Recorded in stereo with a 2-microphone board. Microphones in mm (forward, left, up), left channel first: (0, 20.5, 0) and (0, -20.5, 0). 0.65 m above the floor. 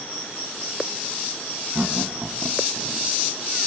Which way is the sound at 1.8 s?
35° right (ahead or behind).